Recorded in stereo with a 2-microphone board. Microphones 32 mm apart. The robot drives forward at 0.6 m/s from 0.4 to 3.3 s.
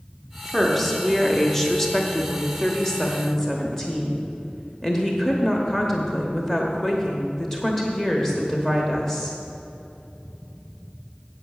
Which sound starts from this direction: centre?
A woman speaking, at 0.5 s.